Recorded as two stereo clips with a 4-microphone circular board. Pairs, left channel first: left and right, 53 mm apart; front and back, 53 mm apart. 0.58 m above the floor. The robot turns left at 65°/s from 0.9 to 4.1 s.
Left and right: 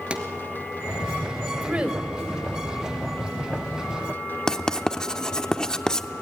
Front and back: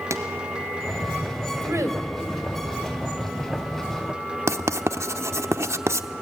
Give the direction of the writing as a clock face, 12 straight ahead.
6 o'clock.